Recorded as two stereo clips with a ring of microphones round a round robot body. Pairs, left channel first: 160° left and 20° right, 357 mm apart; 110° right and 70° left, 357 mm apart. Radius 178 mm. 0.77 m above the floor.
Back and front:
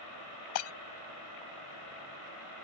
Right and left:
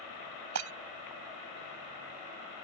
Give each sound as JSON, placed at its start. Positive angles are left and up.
{"t": 0.6, "sound": "breaking glass", "azimuth_deg": 115}